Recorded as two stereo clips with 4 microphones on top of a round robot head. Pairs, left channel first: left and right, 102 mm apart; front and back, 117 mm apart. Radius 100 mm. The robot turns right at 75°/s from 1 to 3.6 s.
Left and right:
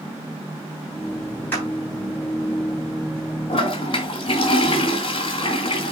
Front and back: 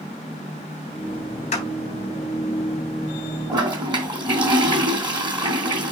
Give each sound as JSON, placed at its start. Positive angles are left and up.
{"t": 1.5, "sound": "a clap", "azimuth_deg": 15, "distance_m": 4.0}
{"t": 3.5, "sound": "a toilet flushing", "azimuth_deg": 120, "distance_m": 3.0}